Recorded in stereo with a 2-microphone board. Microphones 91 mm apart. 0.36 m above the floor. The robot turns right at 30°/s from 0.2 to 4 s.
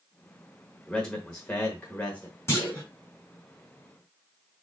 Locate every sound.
0.9 s a man speaking: 5° left (ahead or behind), 1.0 m; by 2.4 s 20° left (ahead or behind), 1.0 m
2.5 s a clunk: 30° left (ahead or behind), 2.5 m; by 2.8 s 20° left (ahead or behind), 2.5 m